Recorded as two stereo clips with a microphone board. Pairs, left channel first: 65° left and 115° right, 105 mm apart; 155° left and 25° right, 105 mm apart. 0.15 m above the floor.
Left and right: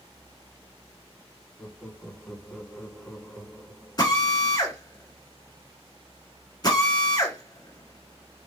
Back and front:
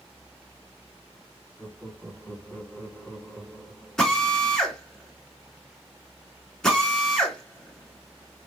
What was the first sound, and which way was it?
Laughter, 115° left.